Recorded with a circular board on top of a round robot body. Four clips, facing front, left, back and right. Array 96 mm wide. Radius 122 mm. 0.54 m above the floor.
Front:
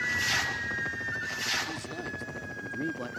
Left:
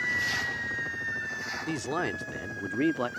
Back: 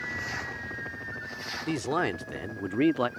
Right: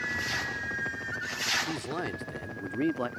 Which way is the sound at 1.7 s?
160° left.